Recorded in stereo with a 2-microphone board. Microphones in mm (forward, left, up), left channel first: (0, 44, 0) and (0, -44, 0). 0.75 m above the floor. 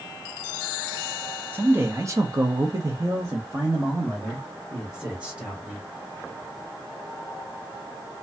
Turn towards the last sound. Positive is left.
turn(degrees=-15)  # may be behind; listen again after turning